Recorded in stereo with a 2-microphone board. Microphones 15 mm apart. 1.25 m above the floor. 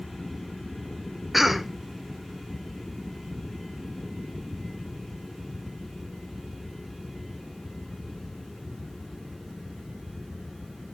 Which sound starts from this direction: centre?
A cough, at 1.3 s.